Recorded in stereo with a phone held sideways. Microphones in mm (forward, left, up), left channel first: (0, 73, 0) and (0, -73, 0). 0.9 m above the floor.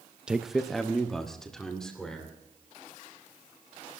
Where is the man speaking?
5° right (ahead or behind), 0.5 m; by 2.4 s 5° left (ahead or behind), 3 m.